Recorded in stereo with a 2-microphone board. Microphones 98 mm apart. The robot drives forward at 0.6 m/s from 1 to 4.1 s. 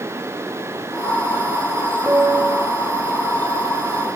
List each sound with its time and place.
2.1 s a piano: 15° right (ahead or behind), 2 m; by 2.7 s 20° right (ahead or behind), 1.9 m